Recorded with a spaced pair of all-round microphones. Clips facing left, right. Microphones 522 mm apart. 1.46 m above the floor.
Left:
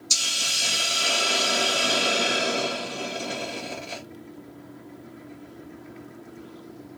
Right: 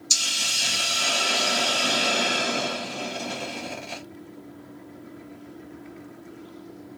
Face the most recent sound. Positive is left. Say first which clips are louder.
# even
turn(degrees=-15)  # may be behind; listen again after turning